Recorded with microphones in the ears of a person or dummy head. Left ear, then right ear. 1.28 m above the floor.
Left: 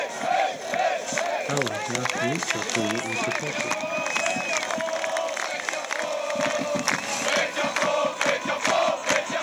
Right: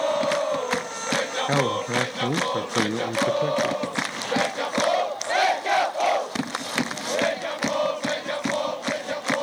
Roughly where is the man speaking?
Right.